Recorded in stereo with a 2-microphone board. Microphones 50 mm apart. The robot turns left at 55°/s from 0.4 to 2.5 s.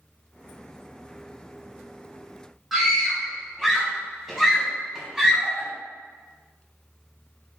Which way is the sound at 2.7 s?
5° right (ahead or behind).